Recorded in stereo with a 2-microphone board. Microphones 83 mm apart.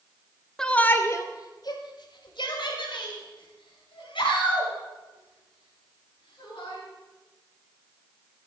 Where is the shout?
5° left (ahead or behind), 1.0 m; by 6.8 s 85° left, 6.5 m.